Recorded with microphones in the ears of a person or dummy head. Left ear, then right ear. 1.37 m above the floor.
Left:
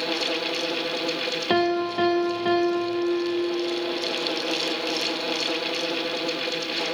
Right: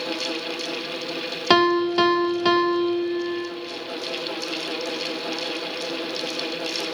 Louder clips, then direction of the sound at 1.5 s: Right 6 dB; 50° right (ahead or behind).